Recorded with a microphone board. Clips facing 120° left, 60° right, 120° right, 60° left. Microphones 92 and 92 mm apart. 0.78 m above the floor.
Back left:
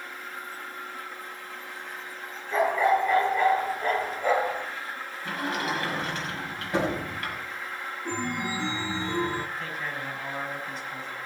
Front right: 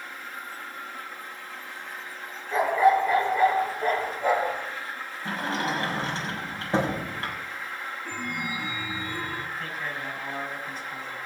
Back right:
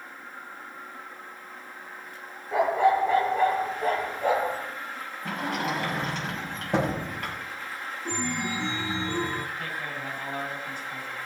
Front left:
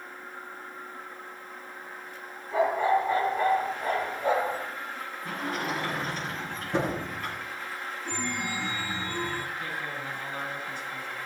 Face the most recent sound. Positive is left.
turn(degrees=-150)